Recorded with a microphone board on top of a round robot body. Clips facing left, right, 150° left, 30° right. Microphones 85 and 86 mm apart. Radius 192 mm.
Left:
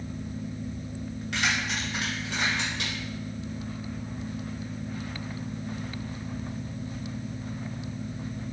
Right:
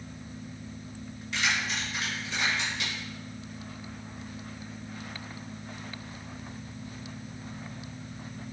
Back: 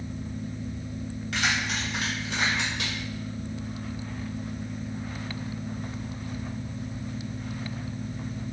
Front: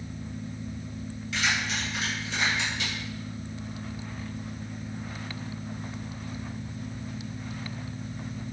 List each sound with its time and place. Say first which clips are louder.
1.3 s keys jangling: left 1 dB, back 1 dB; 115° left, 3.5 m; by 2.9 s 120° left, 6 m